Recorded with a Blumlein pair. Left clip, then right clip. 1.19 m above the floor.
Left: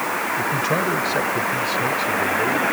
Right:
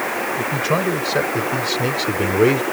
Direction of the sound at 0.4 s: 10° right.